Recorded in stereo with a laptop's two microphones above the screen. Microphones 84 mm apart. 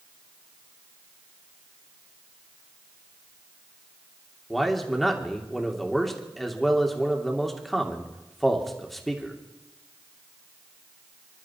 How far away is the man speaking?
About 3 m.